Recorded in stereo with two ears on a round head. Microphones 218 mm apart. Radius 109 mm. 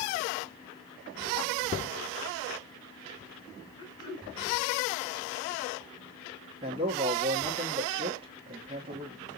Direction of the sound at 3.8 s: 15° left (ahead or behind).